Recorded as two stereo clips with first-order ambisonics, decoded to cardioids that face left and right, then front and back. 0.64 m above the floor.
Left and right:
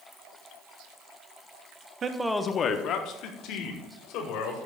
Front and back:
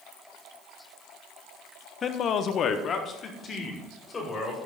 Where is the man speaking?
45° right, 0.6 m; by 4.6 s 70° left, 2.5 m.